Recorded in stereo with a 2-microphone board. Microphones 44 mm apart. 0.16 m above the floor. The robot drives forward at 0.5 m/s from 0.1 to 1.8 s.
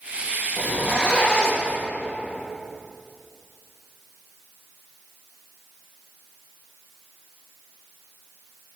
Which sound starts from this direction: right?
A zipper, at 0.6 s.